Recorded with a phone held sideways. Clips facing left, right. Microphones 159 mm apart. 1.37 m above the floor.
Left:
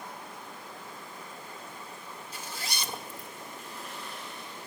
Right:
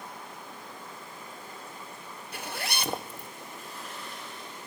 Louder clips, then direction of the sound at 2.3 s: Right 6 dB; 65° right (ahead or behind).